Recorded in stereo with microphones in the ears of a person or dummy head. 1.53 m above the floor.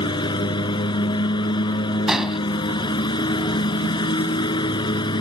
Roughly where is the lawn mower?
Left.